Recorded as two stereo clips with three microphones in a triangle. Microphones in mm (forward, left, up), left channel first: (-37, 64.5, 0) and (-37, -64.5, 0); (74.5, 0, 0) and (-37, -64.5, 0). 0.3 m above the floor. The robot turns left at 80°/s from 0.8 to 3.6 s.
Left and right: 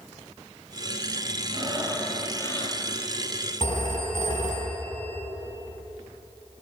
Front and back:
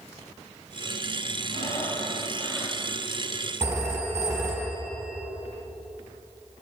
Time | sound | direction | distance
1.5 | breathing | 130° right | 4 m
3.6 | a phone ringing | 140° left | 5.5 m